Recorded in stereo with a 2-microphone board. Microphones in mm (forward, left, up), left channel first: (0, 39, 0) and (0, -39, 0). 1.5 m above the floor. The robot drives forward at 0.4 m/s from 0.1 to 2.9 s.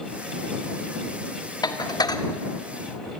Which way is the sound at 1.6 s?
60° left (ahead or behind).